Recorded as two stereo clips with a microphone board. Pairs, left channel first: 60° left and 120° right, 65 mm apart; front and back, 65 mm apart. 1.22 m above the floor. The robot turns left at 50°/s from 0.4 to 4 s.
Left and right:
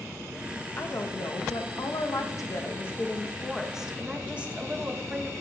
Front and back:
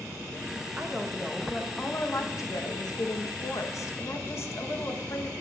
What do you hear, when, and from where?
0.8 s a woman speaking: 110° left, 1.0 m; by 5.3 s 50° right, 1.0 m